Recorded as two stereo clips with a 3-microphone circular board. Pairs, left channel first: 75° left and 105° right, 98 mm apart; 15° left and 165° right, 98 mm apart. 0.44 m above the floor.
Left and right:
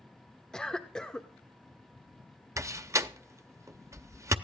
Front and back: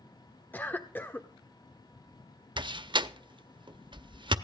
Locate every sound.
0.5 s a cough: 10° left, 1.0 m
2.6 s a door slam: 155° right, 0.7 m